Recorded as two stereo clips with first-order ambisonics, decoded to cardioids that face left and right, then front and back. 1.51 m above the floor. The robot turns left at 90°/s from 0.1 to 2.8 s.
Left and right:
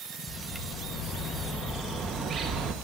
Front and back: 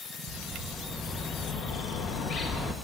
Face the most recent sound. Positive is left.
turn(degrees=-80)